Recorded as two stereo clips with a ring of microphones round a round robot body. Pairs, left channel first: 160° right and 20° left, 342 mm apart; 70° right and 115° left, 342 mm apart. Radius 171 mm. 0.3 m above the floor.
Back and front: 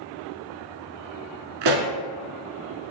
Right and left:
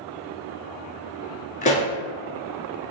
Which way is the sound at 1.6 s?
Straight ahead.